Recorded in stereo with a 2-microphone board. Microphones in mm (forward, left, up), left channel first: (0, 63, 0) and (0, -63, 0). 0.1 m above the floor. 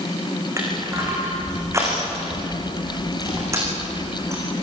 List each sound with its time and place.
0.6 s crushing: 25° right (ahead or behind), 8 m